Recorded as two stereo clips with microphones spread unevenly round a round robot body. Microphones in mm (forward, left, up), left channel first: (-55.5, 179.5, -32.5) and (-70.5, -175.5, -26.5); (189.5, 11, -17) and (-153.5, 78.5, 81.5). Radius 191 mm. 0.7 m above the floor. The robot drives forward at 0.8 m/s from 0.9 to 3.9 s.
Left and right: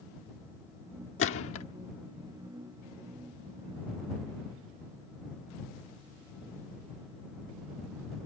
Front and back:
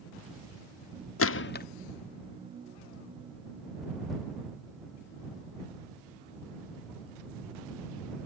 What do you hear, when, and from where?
1.2 s a gunshot: 30° left; by 1.7 s 40° left